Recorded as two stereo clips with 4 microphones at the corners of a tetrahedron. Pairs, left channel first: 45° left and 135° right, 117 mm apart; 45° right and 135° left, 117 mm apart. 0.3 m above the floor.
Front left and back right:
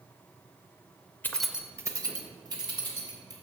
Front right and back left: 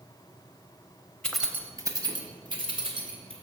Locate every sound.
1.2 s keys jangling: 15° left, 0.6 m; by 3.3 s 175° left, 2.5 m